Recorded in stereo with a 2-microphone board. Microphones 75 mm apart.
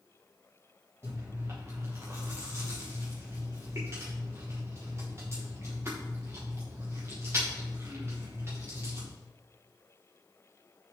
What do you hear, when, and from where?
1.0 s chewing: 35° right (ahead or behind), 5.5 m